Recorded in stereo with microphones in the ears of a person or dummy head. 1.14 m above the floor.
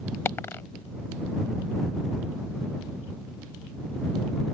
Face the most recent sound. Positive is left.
turn(degrees=15)  # may be behind; listen again after turning